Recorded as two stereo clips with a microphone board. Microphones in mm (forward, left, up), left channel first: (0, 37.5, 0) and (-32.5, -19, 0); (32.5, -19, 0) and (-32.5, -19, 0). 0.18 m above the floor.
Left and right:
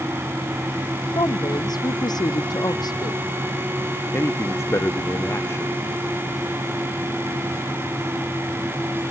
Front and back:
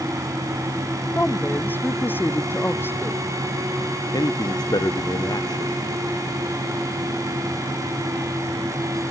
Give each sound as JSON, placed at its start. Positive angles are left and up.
{"t": 1.1, "sound": "a woman speaking", "azimuth_deg": 65}
{"t": 4.1, "sound": "a man speaking", "azimuth_deg": 10}